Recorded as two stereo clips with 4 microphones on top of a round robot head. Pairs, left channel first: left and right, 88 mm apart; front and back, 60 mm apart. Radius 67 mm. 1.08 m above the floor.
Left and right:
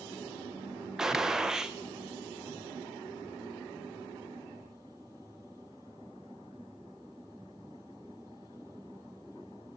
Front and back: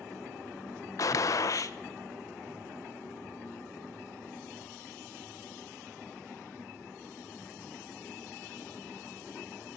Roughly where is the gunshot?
Ahead.